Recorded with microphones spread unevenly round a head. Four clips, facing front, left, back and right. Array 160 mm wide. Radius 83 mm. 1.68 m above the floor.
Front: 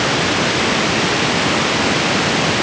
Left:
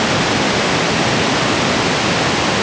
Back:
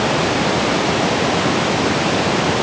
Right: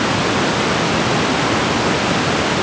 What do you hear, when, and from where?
Only background noise.